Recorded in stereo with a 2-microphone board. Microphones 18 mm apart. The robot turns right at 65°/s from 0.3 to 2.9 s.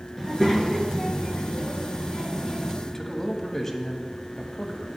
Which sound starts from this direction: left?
A man speaking, at 2.9 s.